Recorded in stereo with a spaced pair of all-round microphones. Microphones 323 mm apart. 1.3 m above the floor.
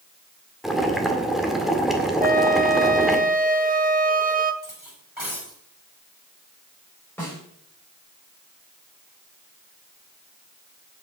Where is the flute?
25° right (ahead or behind), 1.1 m.